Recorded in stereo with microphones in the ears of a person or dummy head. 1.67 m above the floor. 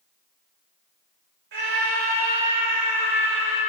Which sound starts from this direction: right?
A scream, at 1.5 s.